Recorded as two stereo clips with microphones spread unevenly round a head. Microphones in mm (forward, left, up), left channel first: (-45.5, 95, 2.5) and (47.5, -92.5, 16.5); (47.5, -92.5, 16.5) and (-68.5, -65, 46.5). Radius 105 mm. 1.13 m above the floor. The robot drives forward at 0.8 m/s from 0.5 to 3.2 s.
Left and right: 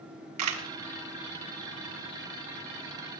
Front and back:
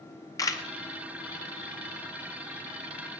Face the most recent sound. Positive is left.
turn(degrees=-140)